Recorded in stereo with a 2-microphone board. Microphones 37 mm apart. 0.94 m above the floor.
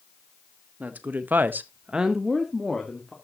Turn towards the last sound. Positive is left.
turn(degrees=10)  # may be behind; listen again after turning